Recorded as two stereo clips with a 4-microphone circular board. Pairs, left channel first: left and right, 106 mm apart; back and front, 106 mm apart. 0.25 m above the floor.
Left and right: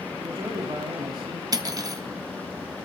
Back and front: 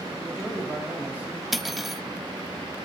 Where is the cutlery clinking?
90° right, 0.9 m.